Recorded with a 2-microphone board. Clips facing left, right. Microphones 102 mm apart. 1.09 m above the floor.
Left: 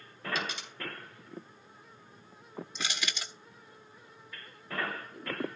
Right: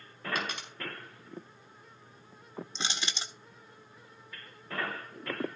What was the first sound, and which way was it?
A dropped coin, 55° right (ahead or behind).